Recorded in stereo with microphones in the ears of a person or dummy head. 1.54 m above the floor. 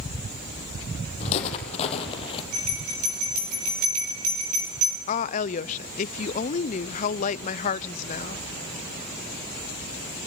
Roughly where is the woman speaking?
Left.